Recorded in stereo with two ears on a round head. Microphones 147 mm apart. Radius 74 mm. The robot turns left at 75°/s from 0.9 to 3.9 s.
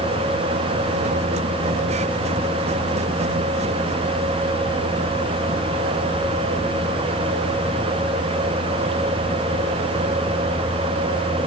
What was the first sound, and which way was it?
Only background noise.